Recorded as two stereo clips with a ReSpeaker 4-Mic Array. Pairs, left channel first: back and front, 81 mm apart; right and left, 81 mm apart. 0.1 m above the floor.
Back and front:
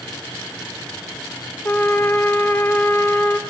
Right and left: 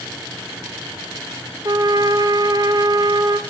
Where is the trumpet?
120° left, 1.4 m.